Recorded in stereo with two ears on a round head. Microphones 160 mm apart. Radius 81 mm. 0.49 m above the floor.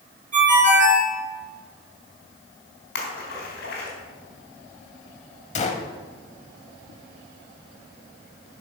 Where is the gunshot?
40° left (ahead or behind), 1.0 m.